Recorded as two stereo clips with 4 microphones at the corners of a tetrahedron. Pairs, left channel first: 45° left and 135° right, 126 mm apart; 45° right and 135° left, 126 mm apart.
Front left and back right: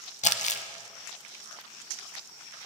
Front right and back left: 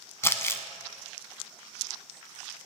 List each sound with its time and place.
0.2 s crumpling: 25° left, 0.6 m